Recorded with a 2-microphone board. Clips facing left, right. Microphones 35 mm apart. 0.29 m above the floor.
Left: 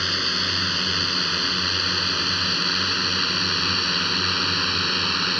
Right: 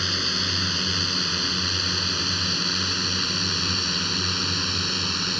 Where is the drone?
15° left (ahead or behind); by 5.4 s 25° left (ahead or behind).